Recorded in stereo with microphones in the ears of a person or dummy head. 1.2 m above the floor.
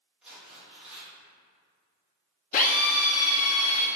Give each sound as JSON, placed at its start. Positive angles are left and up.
{"t": 0.2, "sound": "tearing paper", "side_deg": -5, "distance_m": 1.5}
{"t": 2.5, "sound": "a drill", "side_deg": 40, "distance_m": 0.6}